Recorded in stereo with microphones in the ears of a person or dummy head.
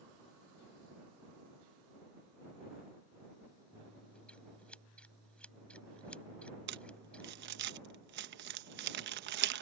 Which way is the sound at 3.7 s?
5° left (ahead or behind).